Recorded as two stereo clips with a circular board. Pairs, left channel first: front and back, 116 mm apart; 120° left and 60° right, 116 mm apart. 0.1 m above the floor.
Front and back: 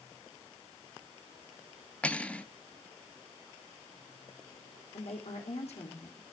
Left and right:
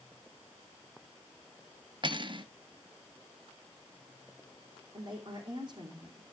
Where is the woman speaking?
15° right, 3 m.